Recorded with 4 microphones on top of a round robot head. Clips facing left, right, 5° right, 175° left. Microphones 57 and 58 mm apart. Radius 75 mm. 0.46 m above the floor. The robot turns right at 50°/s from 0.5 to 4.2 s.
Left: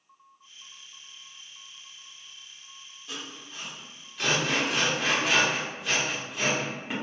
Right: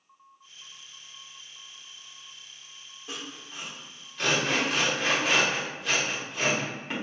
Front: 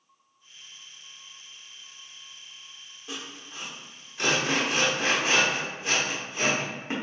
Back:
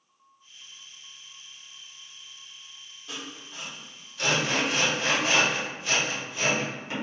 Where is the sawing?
55° right, 1.2 m; by 6.9 s straight ahead, 1.2 m.